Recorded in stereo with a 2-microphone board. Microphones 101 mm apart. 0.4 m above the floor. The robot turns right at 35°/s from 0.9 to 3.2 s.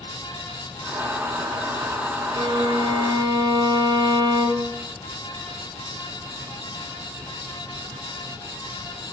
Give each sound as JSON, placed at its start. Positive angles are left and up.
{"t": 2.4, "sound": "a violin", "side_deg": -55, "distance_m": 0.5}